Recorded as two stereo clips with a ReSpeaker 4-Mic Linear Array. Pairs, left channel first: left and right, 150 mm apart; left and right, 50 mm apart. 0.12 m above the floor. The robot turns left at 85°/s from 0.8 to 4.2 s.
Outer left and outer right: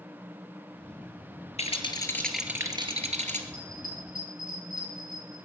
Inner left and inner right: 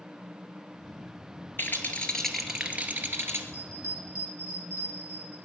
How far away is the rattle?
About 2.5 m.